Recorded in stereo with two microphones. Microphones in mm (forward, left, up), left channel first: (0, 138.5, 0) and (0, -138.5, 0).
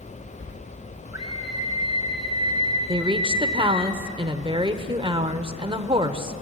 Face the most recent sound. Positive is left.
turn(degrees=-20)  # may be behind; listen again after turning